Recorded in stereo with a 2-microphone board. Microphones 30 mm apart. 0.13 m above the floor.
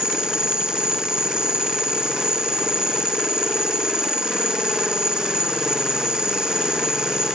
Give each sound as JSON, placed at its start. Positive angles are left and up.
{"t": 0.0, "sound": "an insect", "side_deg": -25}